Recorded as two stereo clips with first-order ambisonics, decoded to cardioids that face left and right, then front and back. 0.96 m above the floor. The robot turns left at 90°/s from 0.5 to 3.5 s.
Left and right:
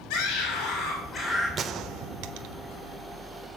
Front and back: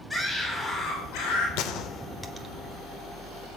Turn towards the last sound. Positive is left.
turn(degrees=165)